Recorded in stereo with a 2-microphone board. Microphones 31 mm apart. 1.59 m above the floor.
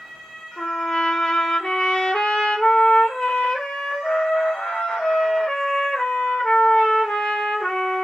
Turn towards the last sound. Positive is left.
turn(degrees=50)  # may be behind; listen again after turning